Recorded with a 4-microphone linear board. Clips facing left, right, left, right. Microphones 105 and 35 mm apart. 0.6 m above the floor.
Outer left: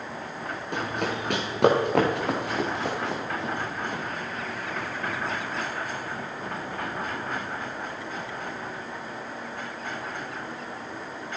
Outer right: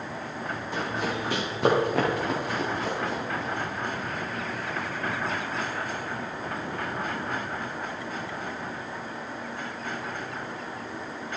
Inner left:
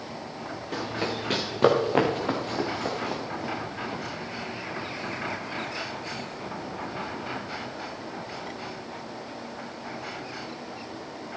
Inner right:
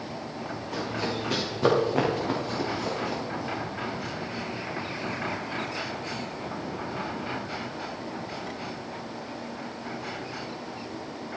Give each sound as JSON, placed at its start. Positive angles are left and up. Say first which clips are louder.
{"t": 0.7, "sound": "running footsteps", "louder": "outer left 1 dB, inner left 1 dB", "side_deg": 60, "distance_m": 4.5}